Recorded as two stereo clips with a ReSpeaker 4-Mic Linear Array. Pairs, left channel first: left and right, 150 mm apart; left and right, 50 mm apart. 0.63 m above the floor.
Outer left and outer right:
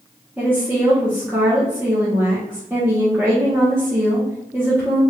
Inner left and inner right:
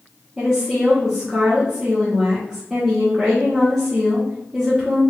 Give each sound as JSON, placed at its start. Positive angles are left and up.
{"t": 0.4, "sound": "a woman speaking", "side_deg": -15, "distance_m": 1.2}